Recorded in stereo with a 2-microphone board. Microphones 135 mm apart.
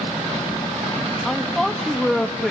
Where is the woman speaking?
Centre (ahead or behind), 1.7 m.